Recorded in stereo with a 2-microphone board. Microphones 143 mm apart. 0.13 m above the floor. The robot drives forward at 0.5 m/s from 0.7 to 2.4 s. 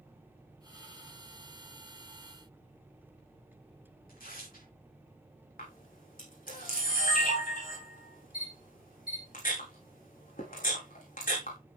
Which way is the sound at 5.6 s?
80° left.